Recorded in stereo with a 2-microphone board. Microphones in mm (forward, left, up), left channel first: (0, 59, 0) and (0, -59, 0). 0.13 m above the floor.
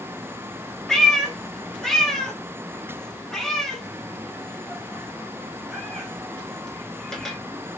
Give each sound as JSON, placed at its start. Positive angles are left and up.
{"t": 0.9, "sound": "a cat meowing", "side_deg": 5, "distance_m": 1.0}